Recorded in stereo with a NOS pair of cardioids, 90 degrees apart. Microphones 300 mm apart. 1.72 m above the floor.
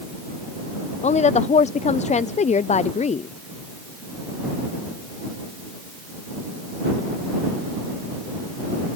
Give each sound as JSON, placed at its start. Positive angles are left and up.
{"t": 1.0, "sound": "a woman speaking", "azimuth_deg": 25}